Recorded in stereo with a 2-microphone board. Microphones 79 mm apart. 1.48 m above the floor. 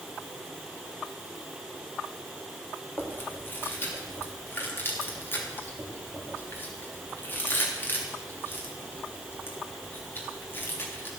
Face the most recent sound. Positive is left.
turn(degrees=30)  # may be behind; listen again after turning